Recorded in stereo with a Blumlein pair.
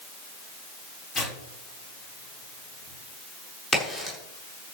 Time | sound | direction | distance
1.1 | tearing paper | 25° left | 5.5 m
3.7 | a crack | 15° left | 7 m